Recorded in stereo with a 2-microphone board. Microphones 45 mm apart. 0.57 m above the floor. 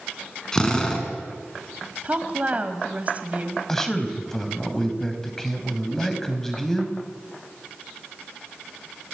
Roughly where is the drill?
Centre.